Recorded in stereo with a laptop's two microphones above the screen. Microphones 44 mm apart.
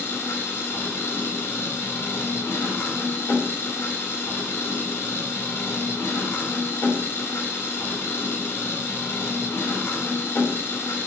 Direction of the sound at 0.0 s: 75° left (ahead or behind).